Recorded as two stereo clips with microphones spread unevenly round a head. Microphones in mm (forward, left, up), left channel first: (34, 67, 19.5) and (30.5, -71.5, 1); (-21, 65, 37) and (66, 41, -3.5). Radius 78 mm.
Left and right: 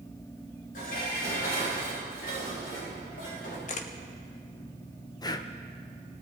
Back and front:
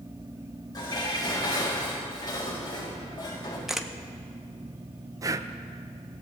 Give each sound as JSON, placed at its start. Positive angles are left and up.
{"t": 0.7, "sound": "dishes clattering", "azimuth_deg": 120, "distance_m": 6.0}
{"t": 3.7, "sound": "a camera shutter", "azimuth_deg": 90, "distance_m": 0.7}
{"t": 5.2, "sound": "breathing", "azimuth_deg": 55, "distance_m": 0.5}